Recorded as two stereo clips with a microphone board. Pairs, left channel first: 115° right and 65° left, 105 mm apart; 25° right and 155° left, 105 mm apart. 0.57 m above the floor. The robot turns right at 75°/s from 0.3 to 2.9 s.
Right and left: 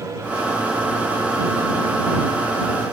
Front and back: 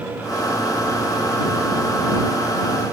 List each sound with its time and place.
Only background noise.